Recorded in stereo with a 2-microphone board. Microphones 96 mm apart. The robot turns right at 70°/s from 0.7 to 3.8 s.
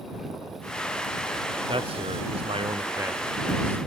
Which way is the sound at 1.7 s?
125° right.